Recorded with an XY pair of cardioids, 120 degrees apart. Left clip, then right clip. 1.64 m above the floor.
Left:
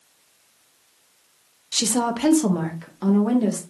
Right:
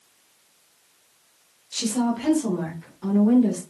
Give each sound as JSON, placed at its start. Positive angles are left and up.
{"t": 1.7, "sound": "a woman speaking", "azimuth_deg": 40, "distance_m": 0.7}